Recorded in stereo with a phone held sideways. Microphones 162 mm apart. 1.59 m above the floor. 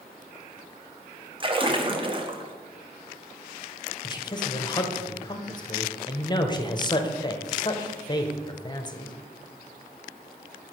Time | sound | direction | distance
1.4 | a splash | 35° right (ahead or behind) | 0.7 m
4.0 | a man speaking | 25° left (ahead or behind) | 0.7 m